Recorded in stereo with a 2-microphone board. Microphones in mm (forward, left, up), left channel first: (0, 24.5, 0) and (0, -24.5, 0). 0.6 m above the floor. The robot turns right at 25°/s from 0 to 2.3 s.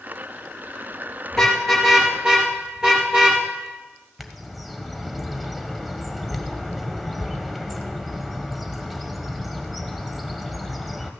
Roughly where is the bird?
Centre.